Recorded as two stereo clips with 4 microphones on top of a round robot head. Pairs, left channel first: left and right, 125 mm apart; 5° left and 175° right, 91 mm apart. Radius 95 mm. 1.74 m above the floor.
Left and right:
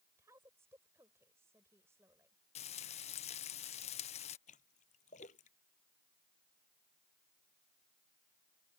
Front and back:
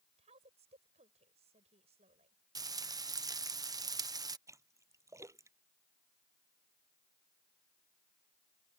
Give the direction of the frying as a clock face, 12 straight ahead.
7 o'clock.